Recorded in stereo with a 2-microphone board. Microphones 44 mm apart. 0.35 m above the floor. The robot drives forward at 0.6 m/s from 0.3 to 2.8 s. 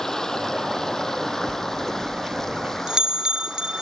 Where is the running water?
10° left (ahead or behind).